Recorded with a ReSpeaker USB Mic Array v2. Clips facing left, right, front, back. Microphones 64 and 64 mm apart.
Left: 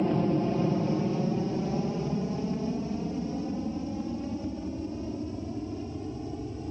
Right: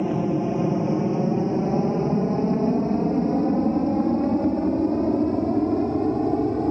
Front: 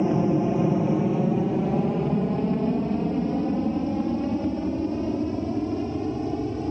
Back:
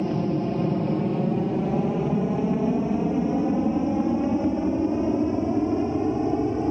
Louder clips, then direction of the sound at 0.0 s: Right 3 dB, front 3 dB; 30° right.